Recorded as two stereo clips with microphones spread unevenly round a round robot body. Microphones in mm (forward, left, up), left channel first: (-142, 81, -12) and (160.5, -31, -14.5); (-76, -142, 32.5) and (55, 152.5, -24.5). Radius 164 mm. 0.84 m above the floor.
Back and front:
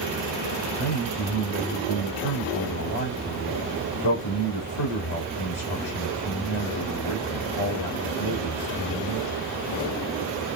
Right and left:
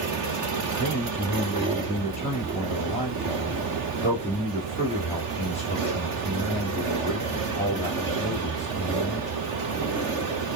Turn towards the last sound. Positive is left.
turn(degrees=170)